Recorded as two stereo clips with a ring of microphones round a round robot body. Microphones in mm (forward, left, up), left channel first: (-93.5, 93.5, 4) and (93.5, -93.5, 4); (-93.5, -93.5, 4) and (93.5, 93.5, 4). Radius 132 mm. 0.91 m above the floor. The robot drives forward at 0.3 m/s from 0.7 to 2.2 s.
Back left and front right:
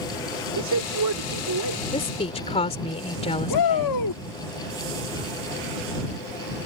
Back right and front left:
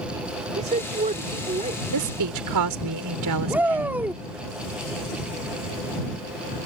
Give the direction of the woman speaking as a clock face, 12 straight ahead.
10 o'clock.